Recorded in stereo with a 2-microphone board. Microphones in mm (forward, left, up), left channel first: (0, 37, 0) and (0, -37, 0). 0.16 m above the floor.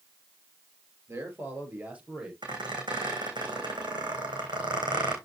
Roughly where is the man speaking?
Right.